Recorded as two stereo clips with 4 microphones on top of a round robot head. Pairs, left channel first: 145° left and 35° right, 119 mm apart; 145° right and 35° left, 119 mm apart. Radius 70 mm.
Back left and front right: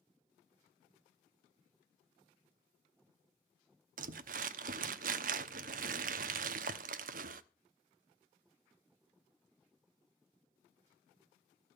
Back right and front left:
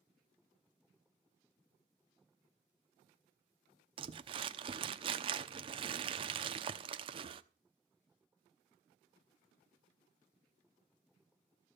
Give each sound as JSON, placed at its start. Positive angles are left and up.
{"t": 4.0, "sound": "crumpling", "azimuth_deg": -15, "distance_m": 0.8}